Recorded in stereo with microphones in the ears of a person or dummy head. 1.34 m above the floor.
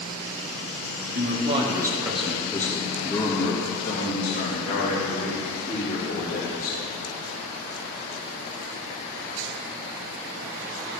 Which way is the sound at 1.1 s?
45° right (ahead or behind).